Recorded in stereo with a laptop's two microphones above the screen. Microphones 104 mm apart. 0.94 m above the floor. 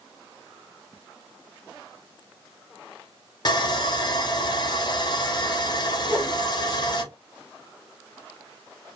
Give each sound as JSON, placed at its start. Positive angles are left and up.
{"t": 3.5, "sound": "sawing", "side_deg": 45, "distance_m": 0.5}
{"t": 6.0, "sound": "a whoosh", "side_deg": -15, "distance_m": 1.2}